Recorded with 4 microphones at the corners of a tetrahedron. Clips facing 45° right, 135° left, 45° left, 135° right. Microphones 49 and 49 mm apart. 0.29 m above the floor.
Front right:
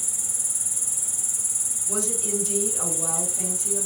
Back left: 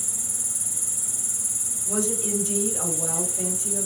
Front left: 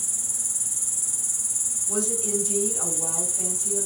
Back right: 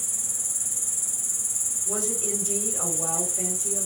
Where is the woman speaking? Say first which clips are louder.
Back left 3 dB, front left 2 dB; 165° right, 1.6 m.